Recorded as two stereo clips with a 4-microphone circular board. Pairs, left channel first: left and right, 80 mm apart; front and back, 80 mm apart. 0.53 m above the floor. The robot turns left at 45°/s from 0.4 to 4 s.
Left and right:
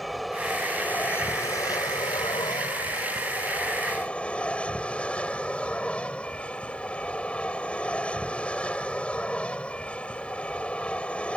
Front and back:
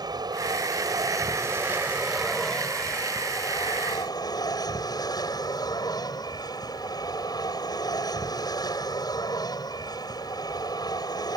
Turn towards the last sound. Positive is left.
turn(degrees=15)